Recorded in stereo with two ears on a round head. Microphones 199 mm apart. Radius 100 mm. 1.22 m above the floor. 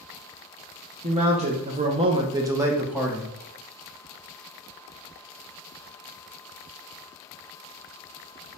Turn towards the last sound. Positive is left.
turn(degrees=-5)  # may be behind; listen again after turning